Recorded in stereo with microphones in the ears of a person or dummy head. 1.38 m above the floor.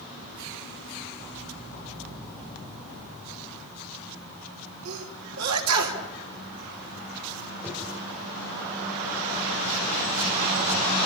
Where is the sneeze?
85° right, 3 m.